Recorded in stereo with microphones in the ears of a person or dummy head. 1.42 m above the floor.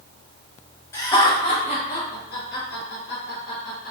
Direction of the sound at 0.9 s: 15° left (ahead or behind).